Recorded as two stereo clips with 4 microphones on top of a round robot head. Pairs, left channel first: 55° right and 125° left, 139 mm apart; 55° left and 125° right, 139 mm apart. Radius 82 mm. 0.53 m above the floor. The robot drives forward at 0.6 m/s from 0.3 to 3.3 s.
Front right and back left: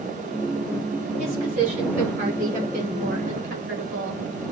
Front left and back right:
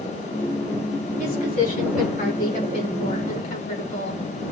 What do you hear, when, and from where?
1.2 s a woman speaking: 85° left, 6.5 m; by 4.2 s 95° left, 6.5 m